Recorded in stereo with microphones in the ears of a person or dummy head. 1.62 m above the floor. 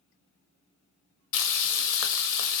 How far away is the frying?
About 0.5 m.